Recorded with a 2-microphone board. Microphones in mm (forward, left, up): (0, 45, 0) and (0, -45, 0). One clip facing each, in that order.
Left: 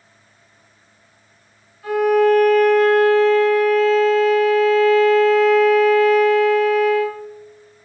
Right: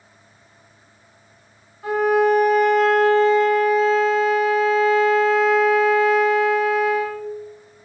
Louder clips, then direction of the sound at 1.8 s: Left 2 dB; 30° right (ahead or behind).